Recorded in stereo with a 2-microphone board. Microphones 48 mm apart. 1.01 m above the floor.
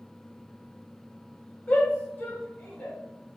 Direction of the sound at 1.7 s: 25° left (ahead or behind).